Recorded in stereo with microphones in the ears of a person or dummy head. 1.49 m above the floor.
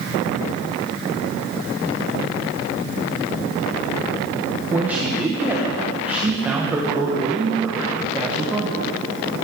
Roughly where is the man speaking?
Centre.